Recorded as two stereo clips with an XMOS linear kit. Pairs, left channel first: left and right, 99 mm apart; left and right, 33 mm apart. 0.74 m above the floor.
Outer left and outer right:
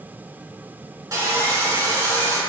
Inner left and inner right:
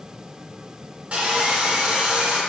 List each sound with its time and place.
1.1 s sawing: 40° right (ahead or behind), 2 m